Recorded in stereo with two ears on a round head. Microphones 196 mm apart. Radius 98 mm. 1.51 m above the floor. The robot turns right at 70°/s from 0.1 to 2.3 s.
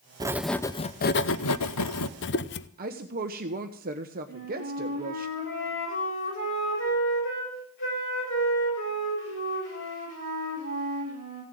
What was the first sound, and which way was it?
Writing, 20° right.